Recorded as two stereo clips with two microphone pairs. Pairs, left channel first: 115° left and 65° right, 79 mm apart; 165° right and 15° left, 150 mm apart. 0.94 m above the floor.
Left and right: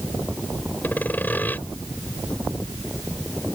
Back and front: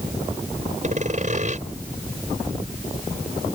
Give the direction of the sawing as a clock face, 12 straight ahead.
10 o'clock.